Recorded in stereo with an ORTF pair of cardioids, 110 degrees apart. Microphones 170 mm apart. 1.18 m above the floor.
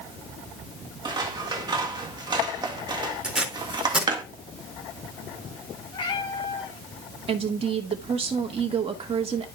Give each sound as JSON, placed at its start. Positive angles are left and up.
{"t": 1.1, "sound": "scissors", "azimuth_deg": -25, "distance_m": 1.6}
{"t": 3.2, "sound": "tape being pulled", "azimuth_deg": -5, "distance_m": 3.0}
{"t": 5.9, "sound": "a cat meowing", "azimuth_deg": 30, "distance_m": 2.5}
{"t": 7.3, "sound": "a woman speaking", "azimuth_deg": -35, "distance_m": 2.0}